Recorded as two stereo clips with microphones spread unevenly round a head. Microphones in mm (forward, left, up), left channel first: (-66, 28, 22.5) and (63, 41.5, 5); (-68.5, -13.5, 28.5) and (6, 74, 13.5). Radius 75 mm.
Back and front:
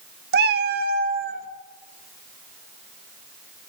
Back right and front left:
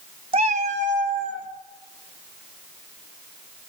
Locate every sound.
0.3 s a cat meowing: 10° right, 0.5 m; by 1.5 s 20° left, 1.9 m